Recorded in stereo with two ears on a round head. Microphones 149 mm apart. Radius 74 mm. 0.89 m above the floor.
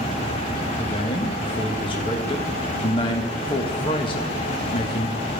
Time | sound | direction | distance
0.8 | a man speaking | 30° left (ahead or behind) | 1.2 m